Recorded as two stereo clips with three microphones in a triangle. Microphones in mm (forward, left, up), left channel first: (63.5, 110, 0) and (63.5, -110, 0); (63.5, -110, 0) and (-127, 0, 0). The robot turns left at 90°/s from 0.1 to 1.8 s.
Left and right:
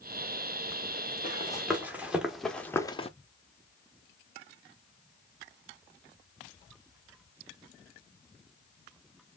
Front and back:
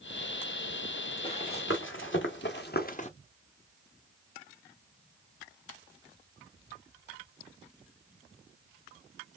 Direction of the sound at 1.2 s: 40° left.